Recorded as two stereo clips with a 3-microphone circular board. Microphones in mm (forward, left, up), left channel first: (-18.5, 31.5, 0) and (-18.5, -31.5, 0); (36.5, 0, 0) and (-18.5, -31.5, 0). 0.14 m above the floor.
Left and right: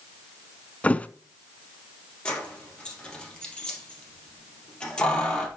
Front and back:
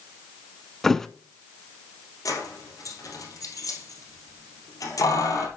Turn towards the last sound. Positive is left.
turn(degrees=15)